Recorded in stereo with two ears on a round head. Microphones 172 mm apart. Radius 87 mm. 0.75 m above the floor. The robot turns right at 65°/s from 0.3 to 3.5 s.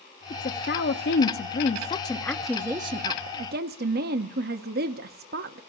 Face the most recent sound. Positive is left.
turn(degrees=-110)